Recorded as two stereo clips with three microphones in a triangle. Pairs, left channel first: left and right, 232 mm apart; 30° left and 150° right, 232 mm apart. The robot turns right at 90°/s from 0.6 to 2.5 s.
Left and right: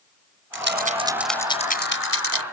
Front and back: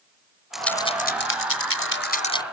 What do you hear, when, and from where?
0.5 s a rattle: 60° right; by 2.4 s 105° left